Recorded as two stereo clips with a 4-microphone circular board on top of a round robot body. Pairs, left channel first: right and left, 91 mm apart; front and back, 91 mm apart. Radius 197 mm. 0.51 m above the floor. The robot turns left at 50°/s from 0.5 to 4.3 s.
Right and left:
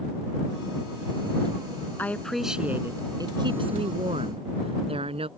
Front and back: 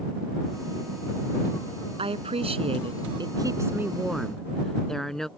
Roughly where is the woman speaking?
Behind.